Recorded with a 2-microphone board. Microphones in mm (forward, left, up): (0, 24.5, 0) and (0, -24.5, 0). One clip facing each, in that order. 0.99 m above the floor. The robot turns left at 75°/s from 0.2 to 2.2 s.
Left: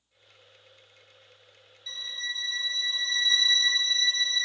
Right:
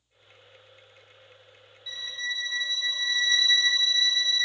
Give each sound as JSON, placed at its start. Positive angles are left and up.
{"t": 1.9, "sound": "a violin", "side_deg": -10, "distance_m": 0.5}